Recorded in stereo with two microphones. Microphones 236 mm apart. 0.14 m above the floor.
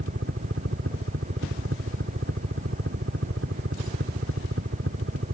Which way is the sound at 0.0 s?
65° right (ahead or behind).